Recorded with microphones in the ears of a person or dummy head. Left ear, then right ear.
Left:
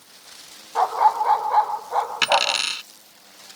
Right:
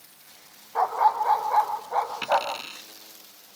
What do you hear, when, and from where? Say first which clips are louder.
0.8 s a dog barking: left 3 dB; 10° left (ahead or behind)
2.2 s a dropped coin: left 6 dB; 60° left (ahead or behind)